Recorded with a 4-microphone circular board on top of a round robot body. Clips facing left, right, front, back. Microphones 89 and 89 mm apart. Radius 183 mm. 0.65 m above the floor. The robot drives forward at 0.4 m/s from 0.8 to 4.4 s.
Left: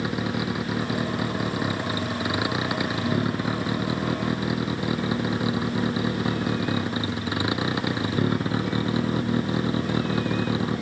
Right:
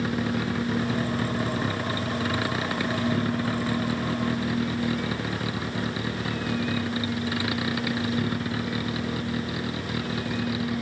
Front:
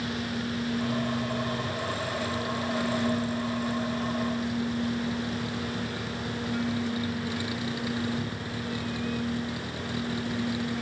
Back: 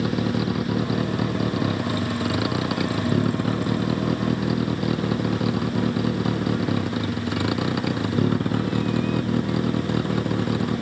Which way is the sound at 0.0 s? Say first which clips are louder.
Even, back 8 dB; 170° left.